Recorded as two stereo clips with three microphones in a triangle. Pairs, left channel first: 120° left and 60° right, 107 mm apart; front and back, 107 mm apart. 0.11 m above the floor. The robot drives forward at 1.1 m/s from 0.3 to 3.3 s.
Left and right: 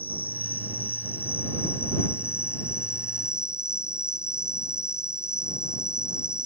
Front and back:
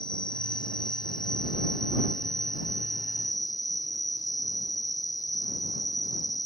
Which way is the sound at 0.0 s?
50° left.